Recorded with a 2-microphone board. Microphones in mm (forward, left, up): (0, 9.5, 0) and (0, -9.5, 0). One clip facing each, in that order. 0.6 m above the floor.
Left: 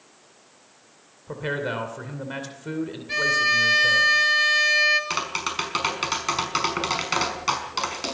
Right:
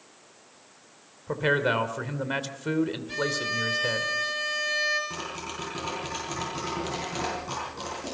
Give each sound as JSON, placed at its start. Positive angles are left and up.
{"t": 1.3, "sound": "a man speaking", "side_deg": -20, "distance_m": 2.5}
{"t": 3.1, "sound": "a violin", "side_deg": 35, "distance_m": 2.5}
{"t": 5.1, "sound": "tapping", "side_deg": 75, "distance_m": 5.0}